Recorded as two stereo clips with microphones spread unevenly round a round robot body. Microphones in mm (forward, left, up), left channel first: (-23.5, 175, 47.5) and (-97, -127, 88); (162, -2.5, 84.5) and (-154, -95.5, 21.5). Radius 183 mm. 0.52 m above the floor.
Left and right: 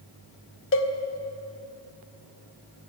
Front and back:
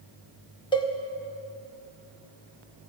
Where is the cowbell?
100° left, 1.7 m.